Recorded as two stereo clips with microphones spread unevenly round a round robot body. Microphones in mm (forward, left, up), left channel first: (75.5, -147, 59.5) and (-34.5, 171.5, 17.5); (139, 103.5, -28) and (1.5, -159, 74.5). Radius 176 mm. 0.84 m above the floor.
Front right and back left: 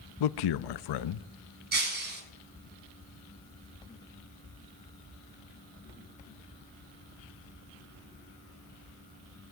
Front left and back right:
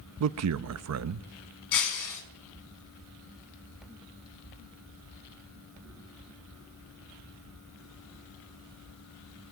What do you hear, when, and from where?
0.2 s a man speaking: 70° right, 0.7 m
1.7 s breaking glass: 45° left, 4.5 m